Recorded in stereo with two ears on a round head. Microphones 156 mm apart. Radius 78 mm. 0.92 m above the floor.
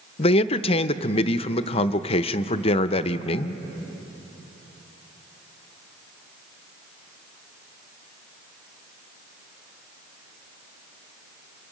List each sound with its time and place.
0.2 s a man speaking: 35° left (ahead or behind), 0.6 m